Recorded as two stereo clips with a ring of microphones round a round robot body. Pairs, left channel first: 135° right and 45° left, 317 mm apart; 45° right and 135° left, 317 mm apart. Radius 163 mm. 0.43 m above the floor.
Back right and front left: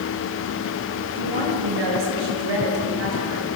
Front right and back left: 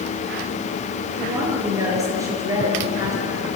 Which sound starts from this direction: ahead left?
A woman speaking, at 1.2 s.